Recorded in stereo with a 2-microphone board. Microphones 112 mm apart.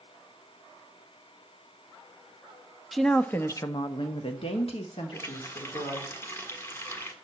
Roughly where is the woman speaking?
Centre.